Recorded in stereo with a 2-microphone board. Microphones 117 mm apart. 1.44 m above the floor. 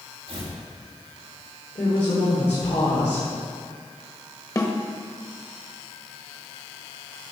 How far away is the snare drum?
About 1.3 m.